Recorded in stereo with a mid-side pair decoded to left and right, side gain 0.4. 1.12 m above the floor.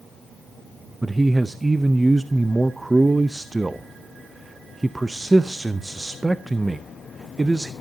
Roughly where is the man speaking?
Ahead.